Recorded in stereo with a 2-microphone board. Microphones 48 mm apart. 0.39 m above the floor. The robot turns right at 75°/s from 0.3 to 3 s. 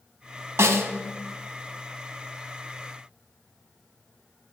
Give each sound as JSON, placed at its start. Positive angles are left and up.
{"t": 0.6, "sound": "a snare drum", "side_deg": -80, "distance_m": 0.5}